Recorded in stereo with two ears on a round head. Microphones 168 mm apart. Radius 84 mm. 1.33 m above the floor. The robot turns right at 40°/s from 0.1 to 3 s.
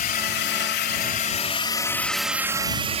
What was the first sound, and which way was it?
A drone, 50° left (ahead or behind).